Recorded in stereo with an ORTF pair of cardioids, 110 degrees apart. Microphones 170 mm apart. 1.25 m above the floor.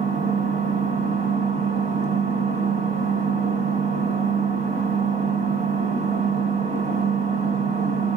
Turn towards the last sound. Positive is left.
turn(degrees=-50)